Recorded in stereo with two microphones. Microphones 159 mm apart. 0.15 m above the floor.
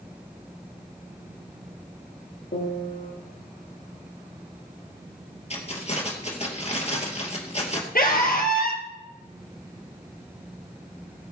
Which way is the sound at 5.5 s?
40° left (ahead or behind).